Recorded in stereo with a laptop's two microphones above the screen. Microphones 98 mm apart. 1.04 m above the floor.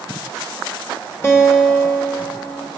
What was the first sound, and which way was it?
A guitar, 30° left (ahead or behind).